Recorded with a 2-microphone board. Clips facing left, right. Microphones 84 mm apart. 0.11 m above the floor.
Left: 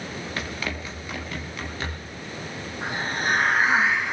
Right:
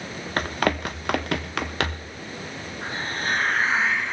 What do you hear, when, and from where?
0.4 s running footsteps: 50° right (ahead or behind), 0.9 m; by 2.1 s 90° right, 2.0 m
2.8 s a hiss: 15° left (ahead or behind), 3 m